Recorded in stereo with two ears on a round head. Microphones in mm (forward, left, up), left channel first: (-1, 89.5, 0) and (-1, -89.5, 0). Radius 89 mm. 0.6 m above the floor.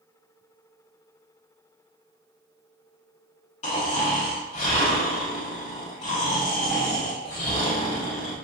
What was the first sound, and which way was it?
Snoring, 35° left (ahead or behind).